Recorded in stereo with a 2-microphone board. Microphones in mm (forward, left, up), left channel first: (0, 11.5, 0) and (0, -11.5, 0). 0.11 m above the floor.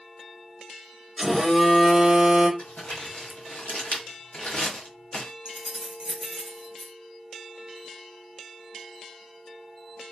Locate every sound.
1.2 s a phone buzzing: 5° right (ahead or behind), 1.7 m
2.6 s crumpling: 80° left, 1.1 m
5.5 s keys jangling: 40° right (ahead or behind), 1.3 m